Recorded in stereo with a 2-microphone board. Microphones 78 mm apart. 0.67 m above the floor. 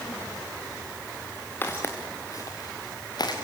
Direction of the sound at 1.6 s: 25° left (ahead or behind).